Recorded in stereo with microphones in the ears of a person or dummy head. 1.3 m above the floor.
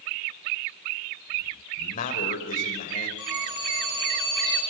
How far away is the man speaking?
About 5 m.